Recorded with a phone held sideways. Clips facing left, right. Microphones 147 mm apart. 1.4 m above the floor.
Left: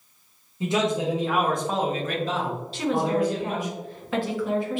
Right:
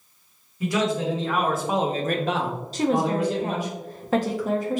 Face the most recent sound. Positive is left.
turn(degrees=-40)  # may be behind; listen again after turning